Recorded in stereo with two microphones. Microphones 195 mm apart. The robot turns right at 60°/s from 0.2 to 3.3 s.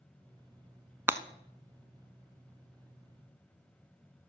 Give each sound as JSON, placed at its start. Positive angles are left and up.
{"t": 1.1, "sound": "breaking glass", "side_deg": -10, "distance_m": 0.6}